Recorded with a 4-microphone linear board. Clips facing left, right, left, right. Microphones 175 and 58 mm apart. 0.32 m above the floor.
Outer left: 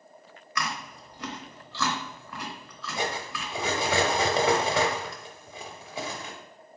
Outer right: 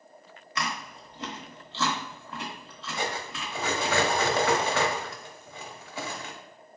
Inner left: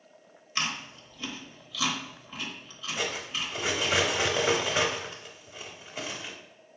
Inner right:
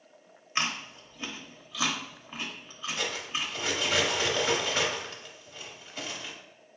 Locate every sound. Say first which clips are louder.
0.6 s chewing: even, inner right 1 dB; 25° right (ahead or behind), 0.8 m
3.0 s cutlery clinking: outer left 1 dB, inner left 1 dB; 15° left (ahead or behind), 0.7 m